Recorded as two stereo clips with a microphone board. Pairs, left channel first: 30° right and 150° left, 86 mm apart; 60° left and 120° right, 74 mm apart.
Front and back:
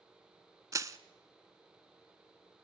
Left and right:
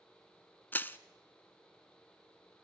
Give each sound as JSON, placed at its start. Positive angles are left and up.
{"t": 0.7, "sound": "crushing", "azimuth_deg": 115, "distance_m": 0.7}